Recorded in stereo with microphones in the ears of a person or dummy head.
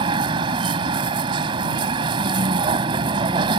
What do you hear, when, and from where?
0.0 s a vehicle: 25° right (ahead or behind)